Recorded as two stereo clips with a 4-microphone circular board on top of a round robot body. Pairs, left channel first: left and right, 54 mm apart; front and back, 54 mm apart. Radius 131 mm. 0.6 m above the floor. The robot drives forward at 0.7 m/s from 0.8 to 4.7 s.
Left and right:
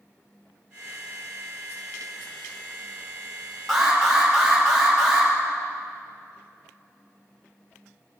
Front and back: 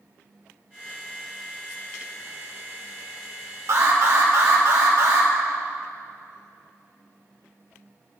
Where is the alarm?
Straight behind, 3.5 m.